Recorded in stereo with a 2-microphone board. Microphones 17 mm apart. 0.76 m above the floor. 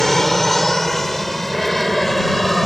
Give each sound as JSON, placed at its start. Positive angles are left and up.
{"t": 0.0, "sound": "an aircraft", "side_deg": 25}